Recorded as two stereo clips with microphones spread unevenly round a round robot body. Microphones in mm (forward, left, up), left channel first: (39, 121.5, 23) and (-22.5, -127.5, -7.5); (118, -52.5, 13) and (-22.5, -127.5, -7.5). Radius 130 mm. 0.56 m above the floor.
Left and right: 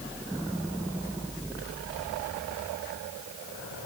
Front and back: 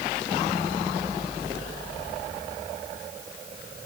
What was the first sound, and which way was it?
Only background noise.